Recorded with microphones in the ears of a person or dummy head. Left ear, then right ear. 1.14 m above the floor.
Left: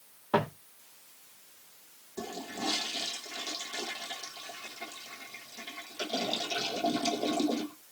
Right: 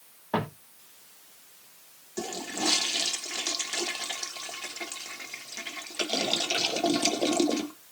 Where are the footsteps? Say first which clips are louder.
Left 2 dB; 5° right (ahead or behind), 2.0 m.